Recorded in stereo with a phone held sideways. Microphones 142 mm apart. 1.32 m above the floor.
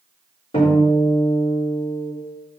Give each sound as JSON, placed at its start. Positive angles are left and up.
{"t": 0.5, "sound": "a guitar", "side_deg": 45, "distance_m": 3.5}